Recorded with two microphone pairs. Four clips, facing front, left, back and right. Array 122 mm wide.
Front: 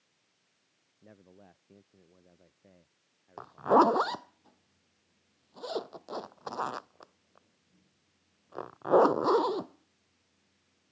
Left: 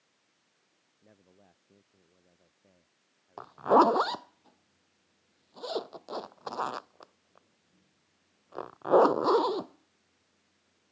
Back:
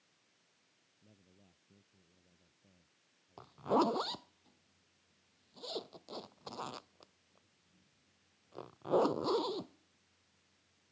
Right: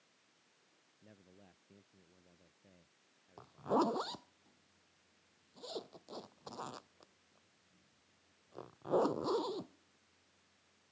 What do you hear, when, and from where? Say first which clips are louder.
1.0 s a man speaking: left 1 dB, front 12 dB; straight ahead
3.4 s a zipper: left 12 dB, front 9 dB; 60° left